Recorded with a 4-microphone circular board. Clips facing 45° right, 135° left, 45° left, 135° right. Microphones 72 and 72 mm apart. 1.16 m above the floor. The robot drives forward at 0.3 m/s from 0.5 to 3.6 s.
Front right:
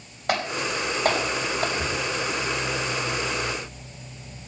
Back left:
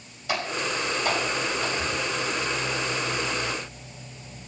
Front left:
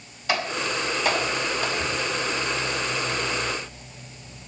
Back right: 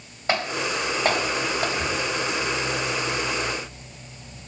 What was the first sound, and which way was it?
Typing on a keyboard, 80° right.